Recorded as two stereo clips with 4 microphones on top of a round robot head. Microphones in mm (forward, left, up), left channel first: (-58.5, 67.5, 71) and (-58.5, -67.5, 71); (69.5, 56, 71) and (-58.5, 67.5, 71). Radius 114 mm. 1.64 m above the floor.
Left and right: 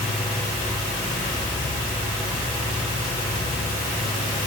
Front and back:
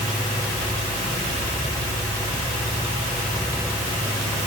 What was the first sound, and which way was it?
Only background noise.